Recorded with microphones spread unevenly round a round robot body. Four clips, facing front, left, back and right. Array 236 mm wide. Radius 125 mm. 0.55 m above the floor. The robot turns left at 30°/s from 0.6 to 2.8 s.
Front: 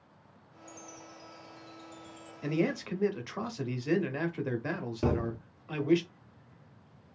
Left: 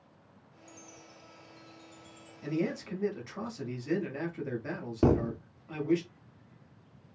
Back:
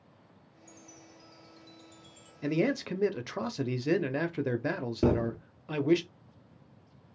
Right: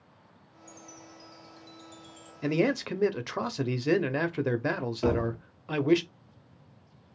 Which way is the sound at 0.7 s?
130° right.